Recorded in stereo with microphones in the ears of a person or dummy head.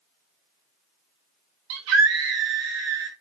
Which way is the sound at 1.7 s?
75° right (ahead or behind).